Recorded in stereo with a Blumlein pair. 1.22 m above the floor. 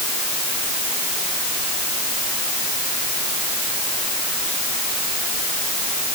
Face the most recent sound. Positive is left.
No sound to turn to.